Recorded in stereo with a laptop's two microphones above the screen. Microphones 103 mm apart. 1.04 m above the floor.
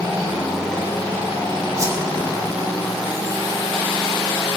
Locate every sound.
1.8 s a whoosh: 30° right (ahead or behind), 1.3 m